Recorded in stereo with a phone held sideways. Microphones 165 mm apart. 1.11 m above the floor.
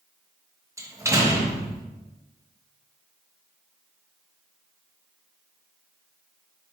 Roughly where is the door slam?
Centre.